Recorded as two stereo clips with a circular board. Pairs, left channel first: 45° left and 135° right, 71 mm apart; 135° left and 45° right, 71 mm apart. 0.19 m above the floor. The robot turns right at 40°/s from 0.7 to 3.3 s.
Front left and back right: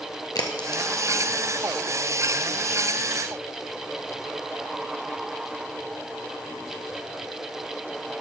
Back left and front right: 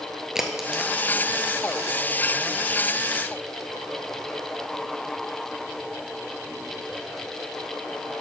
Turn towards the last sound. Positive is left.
turn(degrees=140)